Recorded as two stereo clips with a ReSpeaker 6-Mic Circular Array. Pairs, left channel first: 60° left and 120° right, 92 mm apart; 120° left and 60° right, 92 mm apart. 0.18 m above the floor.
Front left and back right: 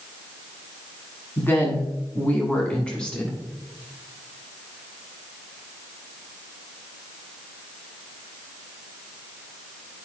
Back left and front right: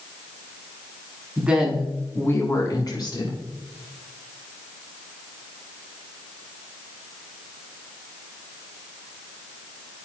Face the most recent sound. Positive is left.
turn(degrees=140)